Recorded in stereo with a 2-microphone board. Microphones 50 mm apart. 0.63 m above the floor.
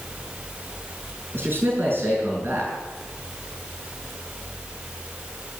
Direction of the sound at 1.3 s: 45° right (ahead or behind).